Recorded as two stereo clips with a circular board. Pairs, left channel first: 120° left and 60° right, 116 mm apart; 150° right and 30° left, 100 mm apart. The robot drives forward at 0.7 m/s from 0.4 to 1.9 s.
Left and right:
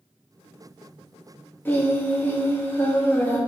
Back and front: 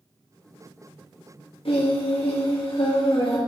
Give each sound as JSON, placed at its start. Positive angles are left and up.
{"t": 1.6, "sound": "singing", "azimuth_deg": -170, "distance_m": 1.7}